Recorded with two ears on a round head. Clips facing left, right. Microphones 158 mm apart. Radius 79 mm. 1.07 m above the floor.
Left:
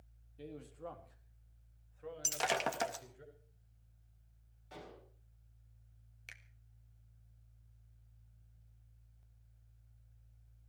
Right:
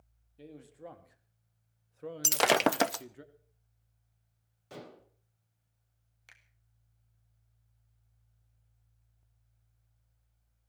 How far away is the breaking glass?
About 0.6 m.